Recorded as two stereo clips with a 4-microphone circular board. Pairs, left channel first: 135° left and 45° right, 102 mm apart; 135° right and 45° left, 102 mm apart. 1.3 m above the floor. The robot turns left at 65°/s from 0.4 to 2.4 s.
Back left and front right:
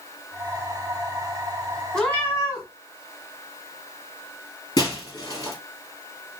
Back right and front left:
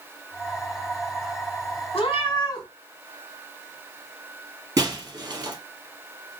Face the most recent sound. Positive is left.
turn(degrees=95)